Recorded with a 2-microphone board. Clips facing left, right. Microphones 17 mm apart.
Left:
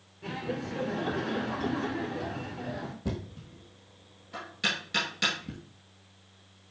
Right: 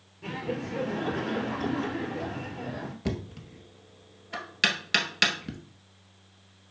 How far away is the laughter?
About 2 m.